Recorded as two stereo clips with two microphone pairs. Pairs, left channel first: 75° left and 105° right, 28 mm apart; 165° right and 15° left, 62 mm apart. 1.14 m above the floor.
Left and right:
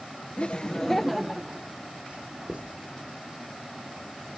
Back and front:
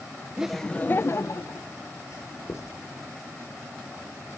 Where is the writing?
140° right, 2.5 m.